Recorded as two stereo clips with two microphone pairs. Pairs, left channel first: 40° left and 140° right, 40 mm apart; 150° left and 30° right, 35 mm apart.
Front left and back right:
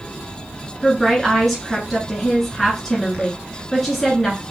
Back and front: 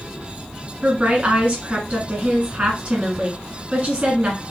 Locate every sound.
0.8 s a woman speaking: 45° right, 1.3 m